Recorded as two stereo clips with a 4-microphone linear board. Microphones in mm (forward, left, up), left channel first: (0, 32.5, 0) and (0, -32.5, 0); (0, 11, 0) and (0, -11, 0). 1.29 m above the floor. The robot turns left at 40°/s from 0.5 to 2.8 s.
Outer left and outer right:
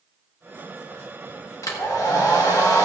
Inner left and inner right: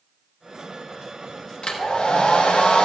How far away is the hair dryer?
About 1.6 m.